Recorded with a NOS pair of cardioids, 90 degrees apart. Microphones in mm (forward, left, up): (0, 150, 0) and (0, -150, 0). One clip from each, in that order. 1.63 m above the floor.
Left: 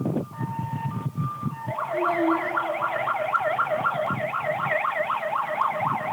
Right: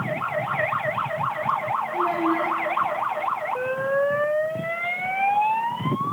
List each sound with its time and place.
1.9 s a child speaking: 25° right, 2 m